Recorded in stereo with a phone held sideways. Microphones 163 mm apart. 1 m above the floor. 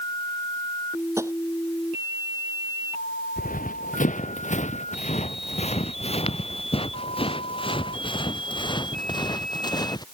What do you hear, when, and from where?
1.2 s tapping: 15° right (ahead or behind)
3.4 s running footsteps: 55° left (ahead or behind); by 10.0 s 25° left (ahead or behind)